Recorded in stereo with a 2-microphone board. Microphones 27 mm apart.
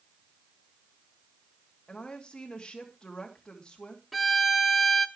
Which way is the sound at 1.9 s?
30° left (ahead or behind).